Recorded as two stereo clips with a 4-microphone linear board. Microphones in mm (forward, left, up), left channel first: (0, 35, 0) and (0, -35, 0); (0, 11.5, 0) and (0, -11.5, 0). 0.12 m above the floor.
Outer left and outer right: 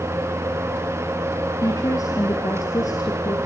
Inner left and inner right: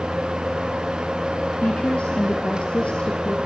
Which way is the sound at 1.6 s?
55° left (ahead or behind).